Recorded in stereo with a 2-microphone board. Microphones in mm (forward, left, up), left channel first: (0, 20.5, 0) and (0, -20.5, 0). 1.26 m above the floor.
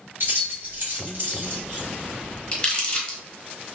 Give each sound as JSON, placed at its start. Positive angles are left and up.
{"t": 0.2, "sound": "keys jangling", "side_deg": -65, "distance_m": 1.4}
{"t": 2.5, "sound": "crumpling", "side_deg": 25, "distance_m": 1.1}